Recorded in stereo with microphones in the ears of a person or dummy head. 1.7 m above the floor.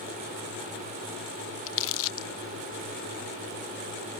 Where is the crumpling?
70° left (ahead or behind).